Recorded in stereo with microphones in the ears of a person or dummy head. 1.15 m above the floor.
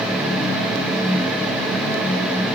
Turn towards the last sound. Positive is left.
No sound to turn to.